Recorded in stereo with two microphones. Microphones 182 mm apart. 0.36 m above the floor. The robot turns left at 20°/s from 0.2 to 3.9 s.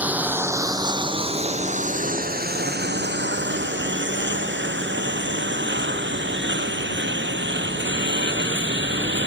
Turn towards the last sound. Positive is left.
turn(degrees=-90)